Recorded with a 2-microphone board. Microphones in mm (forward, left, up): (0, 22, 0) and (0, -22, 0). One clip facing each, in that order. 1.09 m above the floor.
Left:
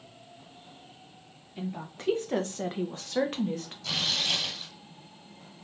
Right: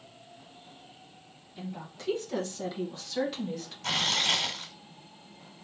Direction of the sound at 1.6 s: 30° left (ahead or behind).